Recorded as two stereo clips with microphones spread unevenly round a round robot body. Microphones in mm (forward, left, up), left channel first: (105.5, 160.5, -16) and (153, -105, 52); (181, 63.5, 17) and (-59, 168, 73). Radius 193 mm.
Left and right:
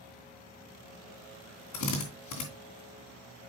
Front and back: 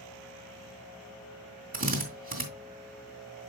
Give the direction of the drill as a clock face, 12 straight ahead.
9 o'clock.